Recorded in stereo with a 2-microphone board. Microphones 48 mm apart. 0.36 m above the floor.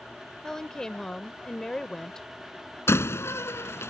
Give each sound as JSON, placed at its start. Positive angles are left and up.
{"t": 0.4, "sound": "a woman speaking", "side_deg": 10}
{"t": 2.9, "sound": "a door slam", "side_deg": 60}